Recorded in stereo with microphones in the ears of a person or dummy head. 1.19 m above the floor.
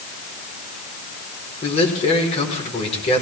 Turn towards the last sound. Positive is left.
turn(degrees=35)  # may be behind; listen again after turning